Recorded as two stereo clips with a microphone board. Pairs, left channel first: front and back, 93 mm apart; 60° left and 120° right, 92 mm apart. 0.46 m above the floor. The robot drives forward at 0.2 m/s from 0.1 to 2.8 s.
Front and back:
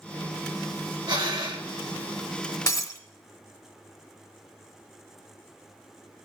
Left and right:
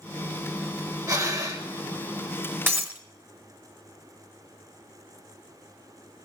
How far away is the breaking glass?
About 1.0 m.